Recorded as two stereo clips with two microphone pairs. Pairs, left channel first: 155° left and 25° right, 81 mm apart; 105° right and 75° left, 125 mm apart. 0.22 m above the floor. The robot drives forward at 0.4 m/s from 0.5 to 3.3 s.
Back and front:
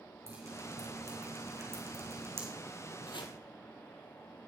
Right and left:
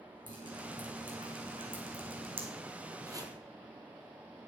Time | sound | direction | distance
0.3 | dripping | 25° left | 3.5 m
3.1 | chopping | 135° left | 1.2 m